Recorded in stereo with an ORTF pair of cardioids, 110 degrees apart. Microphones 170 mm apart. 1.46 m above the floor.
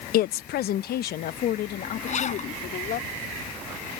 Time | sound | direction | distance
0.1 | a woman speaking | 65° left | ?
2.1 | a zipper | 45° left | ?